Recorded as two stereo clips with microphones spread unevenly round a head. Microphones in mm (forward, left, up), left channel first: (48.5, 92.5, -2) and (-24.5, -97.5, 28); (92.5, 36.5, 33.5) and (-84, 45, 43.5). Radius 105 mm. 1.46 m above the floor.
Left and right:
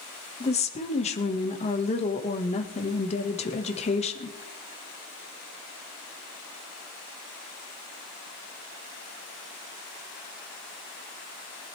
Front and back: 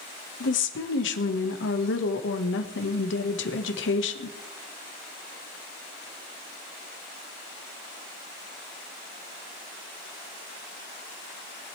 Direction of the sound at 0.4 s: 10° left.